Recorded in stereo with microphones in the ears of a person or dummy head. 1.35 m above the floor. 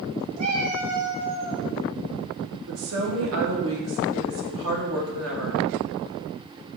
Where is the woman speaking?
80° right, 2.5 m.